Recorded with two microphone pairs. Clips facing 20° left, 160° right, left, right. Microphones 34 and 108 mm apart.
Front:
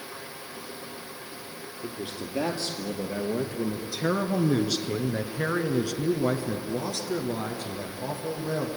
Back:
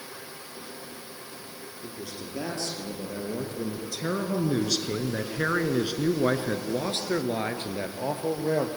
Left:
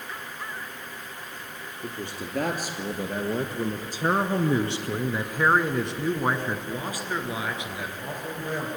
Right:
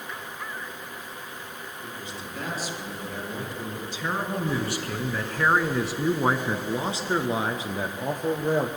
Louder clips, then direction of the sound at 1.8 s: Front 4 dB, left 6 dB; 75° left.